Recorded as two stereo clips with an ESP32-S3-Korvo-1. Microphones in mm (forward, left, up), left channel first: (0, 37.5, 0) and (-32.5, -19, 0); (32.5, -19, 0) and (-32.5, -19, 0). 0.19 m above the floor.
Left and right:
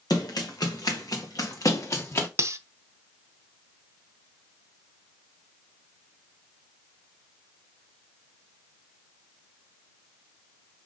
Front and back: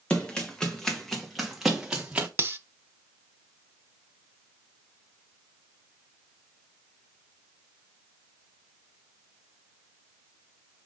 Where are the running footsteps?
70° left, 2 m; by 2.3 s 105° left, 1.7 m.